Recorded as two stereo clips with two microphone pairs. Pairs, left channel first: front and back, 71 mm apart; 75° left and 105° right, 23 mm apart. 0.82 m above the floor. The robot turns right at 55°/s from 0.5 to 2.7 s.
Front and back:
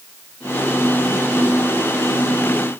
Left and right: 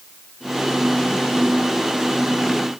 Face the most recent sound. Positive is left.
No sound to turn to.